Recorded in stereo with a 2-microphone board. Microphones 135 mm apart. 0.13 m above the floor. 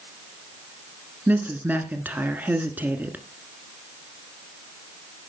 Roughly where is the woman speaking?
Centre.